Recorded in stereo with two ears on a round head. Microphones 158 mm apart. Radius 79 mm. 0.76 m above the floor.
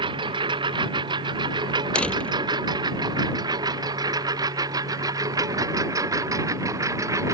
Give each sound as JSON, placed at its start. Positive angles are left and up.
{"t": 0.0, "sound": "a lawn mower", "side_deg": -30}
{"t": 1.9, "sound": "a door slam", "side_deg": 5}